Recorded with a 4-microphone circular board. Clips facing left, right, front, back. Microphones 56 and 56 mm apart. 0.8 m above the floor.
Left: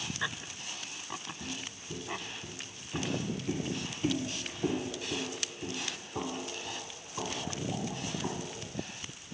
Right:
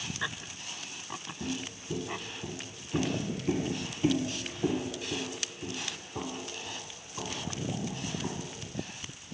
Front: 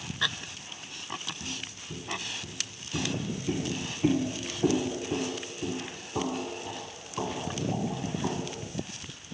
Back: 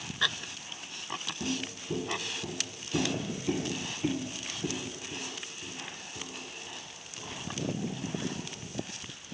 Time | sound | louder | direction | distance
1.4 | footsteps | right 5 dB, back 5 dB | 155° right | 1.8 m